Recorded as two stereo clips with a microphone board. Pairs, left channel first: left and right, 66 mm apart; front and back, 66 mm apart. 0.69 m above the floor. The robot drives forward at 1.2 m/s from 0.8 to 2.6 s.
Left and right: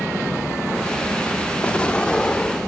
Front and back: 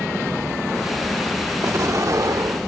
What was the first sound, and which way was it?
An explosion, 155° left.